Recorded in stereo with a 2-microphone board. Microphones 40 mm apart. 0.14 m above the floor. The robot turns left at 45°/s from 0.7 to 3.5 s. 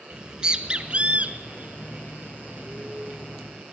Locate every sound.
0.1 s a bird: 25° right (ahead or behind), 0.9 m; by 3.6 s 15° right (ahead or behind), 0.9 m